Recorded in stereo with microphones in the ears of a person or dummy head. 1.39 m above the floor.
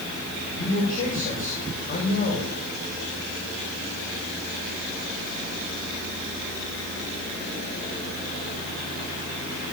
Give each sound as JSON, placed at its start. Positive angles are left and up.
{"t": 0.6, "sound": "a man speaking", "side_deg": 45, "distance_m": 7.0}